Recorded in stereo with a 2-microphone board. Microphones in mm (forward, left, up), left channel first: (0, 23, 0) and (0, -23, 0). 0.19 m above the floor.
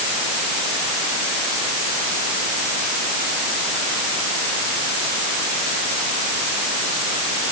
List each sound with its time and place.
Only background noise.